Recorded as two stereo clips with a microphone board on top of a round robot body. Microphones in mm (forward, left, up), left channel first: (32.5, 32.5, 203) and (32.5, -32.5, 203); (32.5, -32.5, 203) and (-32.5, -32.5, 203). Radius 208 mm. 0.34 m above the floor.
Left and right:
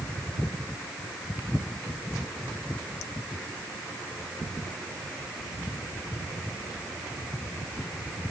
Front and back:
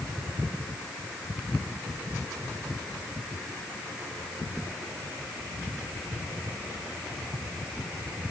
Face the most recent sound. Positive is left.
No sound to turn to.